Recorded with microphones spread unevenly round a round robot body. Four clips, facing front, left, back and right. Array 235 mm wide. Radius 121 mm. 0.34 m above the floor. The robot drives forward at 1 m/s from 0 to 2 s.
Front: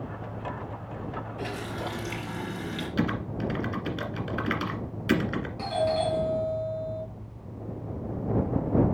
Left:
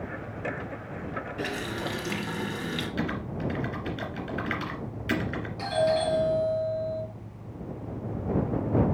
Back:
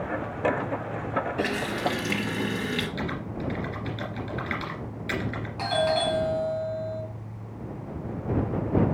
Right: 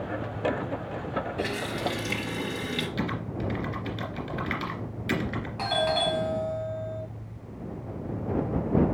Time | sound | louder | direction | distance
1.4 | a running tap | right 2 dB, back 6 dB | 170° left | 3.5 m
3.0 | typing on a keyboard | even, front 3 dB | straight ahead | 1.5 m
5.6 | a doorbell | left 2 dB, back 2 dB | 155° right | 3.5 m